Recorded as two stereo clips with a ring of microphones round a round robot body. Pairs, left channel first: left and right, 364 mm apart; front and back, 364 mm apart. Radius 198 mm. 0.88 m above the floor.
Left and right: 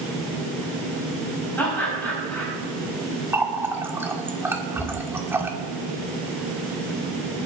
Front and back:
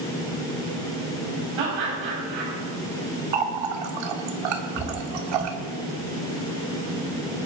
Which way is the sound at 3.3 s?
175° right.